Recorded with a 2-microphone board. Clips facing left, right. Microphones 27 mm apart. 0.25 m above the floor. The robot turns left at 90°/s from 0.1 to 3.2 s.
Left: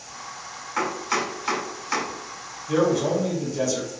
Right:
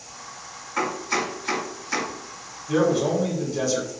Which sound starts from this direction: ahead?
A man speaking, at 2.7 s.